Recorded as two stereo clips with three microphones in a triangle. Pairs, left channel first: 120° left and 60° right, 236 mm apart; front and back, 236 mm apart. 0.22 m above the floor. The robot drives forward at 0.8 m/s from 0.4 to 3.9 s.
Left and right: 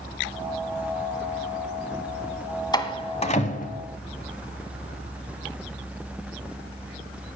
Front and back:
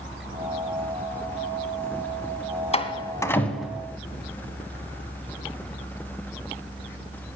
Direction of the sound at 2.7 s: 50° left.